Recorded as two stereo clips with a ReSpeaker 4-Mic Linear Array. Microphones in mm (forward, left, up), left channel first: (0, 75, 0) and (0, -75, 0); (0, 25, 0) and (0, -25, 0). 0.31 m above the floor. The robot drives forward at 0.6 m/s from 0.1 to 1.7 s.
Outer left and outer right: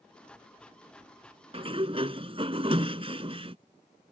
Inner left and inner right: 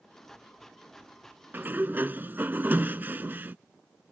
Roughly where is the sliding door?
Right.